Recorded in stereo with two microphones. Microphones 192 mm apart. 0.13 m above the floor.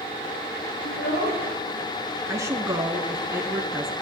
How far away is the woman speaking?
About 1.1 m.